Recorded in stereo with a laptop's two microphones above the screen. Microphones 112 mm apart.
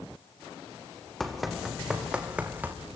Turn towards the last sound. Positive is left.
turn(degrees=-15)  # may be behind; listen again after turning